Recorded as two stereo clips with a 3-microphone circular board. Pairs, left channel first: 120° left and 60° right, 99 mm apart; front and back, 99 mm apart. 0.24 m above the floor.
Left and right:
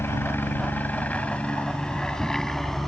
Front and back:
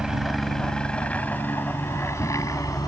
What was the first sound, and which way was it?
A helicopter, 105° left.